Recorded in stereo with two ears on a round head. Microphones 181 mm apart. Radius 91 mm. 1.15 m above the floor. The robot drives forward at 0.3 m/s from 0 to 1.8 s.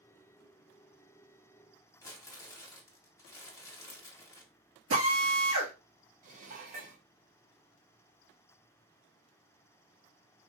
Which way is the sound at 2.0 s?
15° left (ahead or behind).